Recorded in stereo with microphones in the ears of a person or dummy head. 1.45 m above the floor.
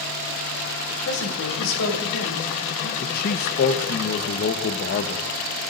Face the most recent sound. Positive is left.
turn(degrees=45)  # may be behind; listen again after turning